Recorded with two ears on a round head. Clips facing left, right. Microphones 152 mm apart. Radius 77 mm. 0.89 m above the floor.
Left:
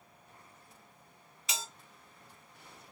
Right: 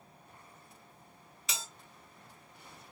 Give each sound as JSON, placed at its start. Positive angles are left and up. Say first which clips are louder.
{"t": 1.5, "sound": "a bell", "louder": "left 2 dB", "side_deg": -85, "distance_m": 2.5}